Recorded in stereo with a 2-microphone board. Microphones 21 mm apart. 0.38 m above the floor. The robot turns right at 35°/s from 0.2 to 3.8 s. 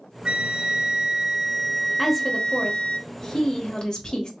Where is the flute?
55° right, 0.6 m; by 3.0 s 40° left, 0.6 m.